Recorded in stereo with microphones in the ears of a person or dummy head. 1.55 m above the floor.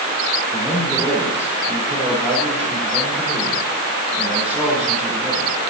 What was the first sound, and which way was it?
A man speaking, centre (ahead or behind).